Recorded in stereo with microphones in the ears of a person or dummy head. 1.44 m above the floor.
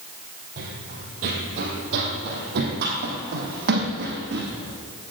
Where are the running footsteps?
45° right (ahead or behind), 2 m; by 4.5 s 60° right (ahead or behind), 3.5 m.